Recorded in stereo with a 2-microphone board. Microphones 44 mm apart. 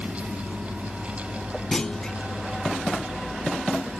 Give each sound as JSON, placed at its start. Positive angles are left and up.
{"t": 1.7, "sound": "a clunk", "side_deg": 15}